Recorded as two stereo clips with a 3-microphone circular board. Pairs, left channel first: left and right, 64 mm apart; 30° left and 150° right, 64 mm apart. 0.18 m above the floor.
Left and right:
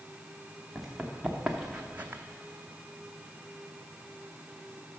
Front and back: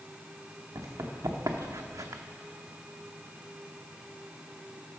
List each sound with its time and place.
0.8 s running footsteps: straight behind, 1.9 m; by 2.2 s 145° right, 0.6 m